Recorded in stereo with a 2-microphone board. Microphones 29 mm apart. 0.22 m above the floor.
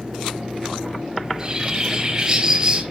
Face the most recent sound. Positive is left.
turn(degrees=-25)  # may be behind; listen again after turning